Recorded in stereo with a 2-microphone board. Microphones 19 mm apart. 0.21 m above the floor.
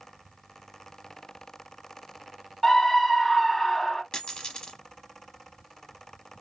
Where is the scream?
10° left (ahead or behind), 1.1 m.